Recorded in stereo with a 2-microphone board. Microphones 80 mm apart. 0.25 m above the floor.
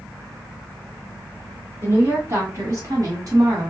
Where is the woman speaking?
30° right (ahead or behind), 2.5 m; by 3.7 s 45° right (ahead or behind), 1.6 m.